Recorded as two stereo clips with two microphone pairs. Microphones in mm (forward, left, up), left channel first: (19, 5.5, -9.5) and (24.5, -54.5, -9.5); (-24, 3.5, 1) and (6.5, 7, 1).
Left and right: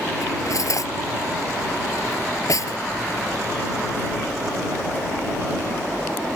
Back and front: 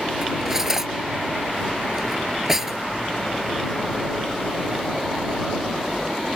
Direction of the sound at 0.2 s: 80° left.